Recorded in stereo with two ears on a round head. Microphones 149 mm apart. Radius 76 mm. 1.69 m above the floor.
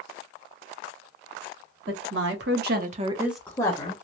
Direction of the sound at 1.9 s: 80° right.